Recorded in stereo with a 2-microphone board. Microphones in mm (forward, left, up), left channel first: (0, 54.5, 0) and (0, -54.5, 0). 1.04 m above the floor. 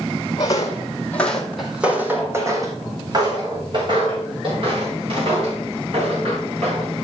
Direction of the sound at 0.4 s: 35° left (ahead or behind).